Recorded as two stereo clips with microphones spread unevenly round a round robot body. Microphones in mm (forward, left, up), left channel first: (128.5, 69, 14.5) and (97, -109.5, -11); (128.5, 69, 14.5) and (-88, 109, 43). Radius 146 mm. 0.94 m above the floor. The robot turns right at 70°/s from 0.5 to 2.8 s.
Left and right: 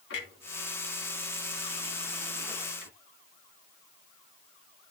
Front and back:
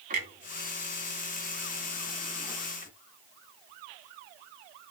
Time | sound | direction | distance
0.1 | a clunk | 120° left | 3 m